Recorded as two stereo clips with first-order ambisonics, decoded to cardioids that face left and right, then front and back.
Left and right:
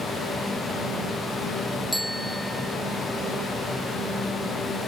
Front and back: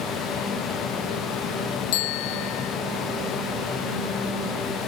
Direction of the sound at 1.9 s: 5° right.